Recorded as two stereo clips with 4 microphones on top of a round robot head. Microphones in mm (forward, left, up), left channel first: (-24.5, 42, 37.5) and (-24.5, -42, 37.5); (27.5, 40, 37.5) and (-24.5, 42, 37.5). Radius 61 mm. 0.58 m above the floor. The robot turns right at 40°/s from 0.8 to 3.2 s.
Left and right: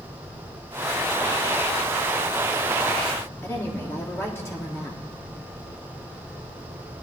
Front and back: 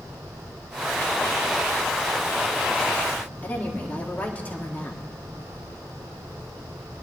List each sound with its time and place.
3.4 s a woman speaking: 45° left, 1.7 m